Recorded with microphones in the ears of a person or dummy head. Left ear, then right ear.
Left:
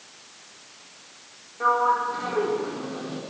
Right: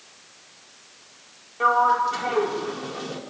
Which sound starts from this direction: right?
A sliding door, at 1.6 s.